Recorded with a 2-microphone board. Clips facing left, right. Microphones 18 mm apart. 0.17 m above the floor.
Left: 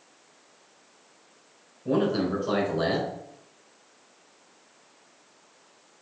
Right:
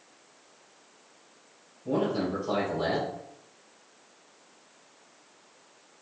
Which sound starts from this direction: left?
A man speaking, at 1.9 s.